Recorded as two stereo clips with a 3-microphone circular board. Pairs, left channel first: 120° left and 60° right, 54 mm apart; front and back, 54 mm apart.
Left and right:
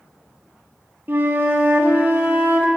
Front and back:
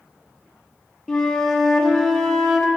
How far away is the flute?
About 0.8 m.